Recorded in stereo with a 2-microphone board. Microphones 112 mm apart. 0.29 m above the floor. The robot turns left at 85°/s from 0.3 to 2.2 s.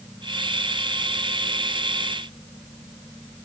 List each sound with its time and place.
Only background noise.